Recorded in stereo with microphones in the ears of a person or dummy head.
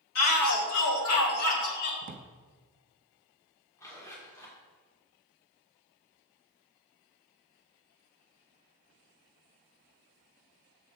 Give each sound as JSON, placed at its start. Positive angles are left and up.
{"t": 0.1, "sound": "a shout", "side_deg": 80, "distance_m": 2.0}
{"t": 2.0, "sound": "a drawer", "side_deg": -50, "distance_m": 0.8}
{"t": 3.8, "sound": "a zipper", "side_deg": 15, "distance_m": 1.9}